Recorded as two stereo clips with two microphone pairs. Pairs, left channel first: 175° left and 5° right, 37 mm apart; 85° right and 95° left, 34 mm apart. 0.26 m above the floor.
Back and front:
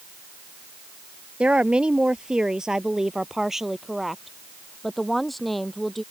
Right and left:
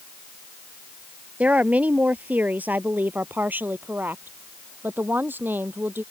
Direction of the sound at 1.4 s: 50° left.